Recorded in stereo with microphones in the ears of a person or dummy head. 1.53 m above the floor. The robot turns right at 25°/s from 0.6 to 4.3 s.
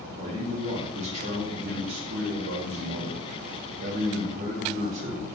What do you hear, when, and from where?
0.2 s a man speaking: 140° right, 0.7 m; by 5.3 s 50° right, 0.7 m